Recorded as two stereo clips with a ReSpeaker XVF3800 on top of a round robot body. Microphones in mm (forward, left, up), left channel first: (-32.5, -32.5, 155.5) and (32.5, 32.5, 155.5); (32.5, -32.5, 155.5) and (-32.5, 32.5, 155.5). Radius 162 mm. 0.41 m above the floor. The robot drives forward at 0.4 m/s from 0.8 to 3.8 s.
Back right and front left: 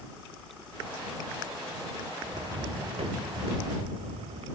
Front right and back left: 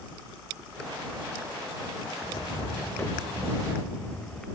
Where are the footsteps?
Straight ahead; by 4.5 s 35° left.